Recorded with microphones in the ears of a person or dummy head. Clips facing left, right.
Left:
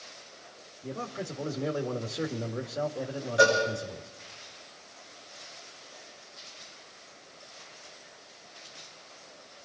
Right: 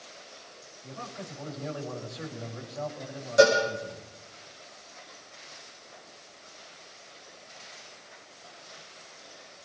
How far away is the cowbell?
About 7.5 m.